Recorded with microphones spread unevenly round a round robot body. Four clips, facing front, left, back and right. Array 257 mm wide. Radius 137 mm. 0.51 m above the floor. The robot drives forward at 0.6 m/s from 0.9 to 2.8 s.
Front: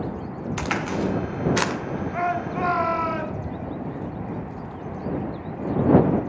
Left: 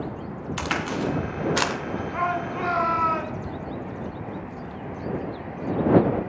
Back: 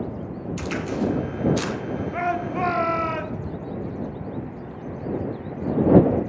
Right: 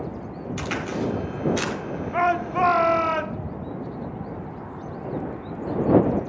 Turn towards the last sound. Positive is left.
turn(degrees=-130)